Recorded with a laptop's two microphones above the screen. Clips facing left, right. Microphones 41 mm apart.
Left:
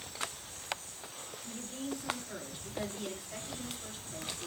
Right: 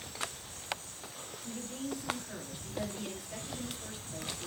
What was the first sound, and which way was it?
A woman speaking, 15° right (ahead or behind).